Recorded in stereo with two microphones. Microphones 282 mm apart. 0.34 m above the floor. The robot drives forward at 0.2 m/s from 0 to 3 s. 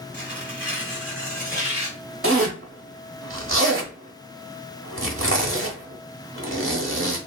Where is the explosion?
No explosion in this recording.